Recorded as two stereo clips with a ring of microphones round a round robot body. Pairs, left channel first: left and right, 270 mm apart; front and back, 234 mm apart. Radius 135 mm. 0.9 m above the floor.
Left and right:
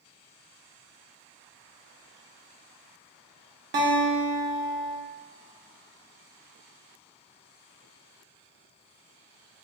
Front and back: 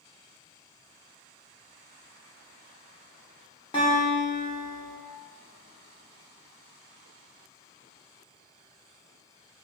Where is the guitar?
65° right, 0.6 m.